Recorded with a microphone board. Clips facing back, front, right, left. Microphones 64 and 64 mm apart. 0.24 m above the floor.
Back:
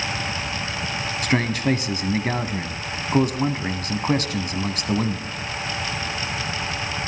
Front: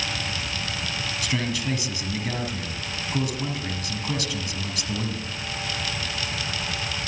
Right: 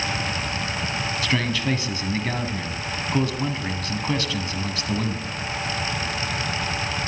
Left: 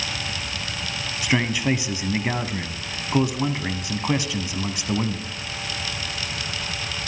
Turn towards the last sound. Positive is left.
turn(degrees=160)